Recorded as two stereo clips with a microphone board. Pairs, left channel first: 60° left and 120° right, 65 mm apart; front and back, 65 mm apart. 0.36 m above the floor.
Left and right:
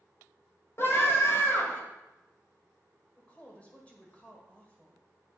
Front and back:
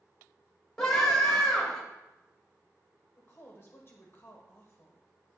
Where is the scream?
75° left, 1.6 m.